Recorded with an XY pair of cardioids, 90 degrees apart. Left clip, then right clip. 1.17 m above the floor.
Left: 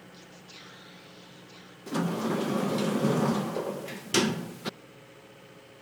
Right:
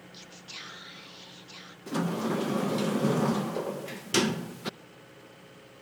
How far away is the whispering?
About 1.8 m.